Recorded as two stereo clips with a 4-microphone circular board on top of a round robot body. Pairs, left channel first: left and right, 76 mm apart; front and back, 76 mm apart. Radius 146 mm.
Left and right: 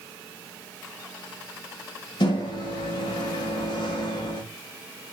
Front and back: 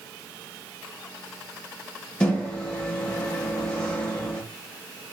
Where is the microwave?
75° left, 0.7 m.